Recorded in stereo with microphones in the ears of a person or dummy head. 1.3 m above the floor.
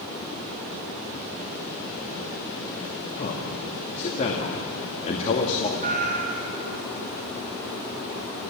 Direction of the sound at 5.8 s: 40° right (ahead or behind).